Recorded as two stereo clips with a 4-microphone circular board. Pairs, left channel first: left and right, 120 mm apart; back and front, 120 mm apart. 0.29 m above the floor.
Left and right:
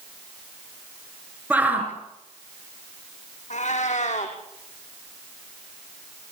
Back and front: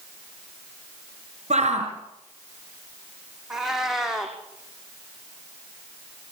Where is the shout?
10° right, 5 m.